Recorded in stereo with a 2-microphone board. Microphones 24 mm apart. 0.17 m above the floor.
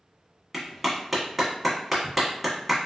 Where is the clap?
5° right (ahead or behind), 0.9 m.